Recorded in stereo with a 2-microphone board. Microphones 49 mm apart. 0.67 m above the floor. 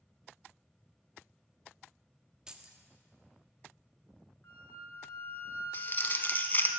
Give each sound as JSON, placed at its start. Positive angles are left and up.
{"t": 2.5, "sound": "keys jangling", "side_deg": -15, "distance_m": 0.8}
{"t": 4.4, "sound": "a flute", "side_deg": 45, "distance_m": 1.4}
{"t": 5.7, "sound": "crumpling", "side_deg": 40, "distance_m": 0.8}